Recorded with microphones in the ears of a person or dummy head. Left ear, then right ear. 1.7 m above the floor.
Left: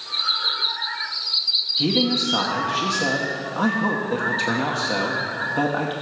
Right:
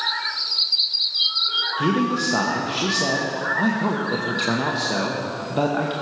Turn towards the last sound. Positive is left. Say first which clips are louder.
# left 1 dB
turn(degrees=5)  # may be behind; listen again after turning